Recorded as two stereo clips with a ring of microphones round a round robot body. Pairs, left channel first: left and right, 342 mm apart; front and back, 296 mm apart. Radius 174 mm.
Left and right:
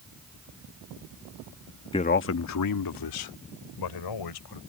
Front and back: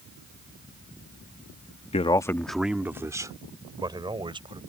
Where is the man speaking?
35° left; by 4.6 s 105° left.